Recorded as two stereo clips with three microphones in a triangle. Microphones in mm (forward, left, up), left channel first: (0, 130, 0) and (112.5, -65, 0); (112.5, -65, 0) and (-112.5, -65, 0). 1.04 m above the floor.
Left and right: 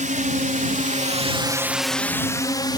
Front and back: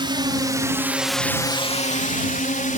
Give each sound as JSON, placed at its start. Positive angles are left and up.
{"t": 0.0, "sound": "a drone", "azimuth_deg": -110}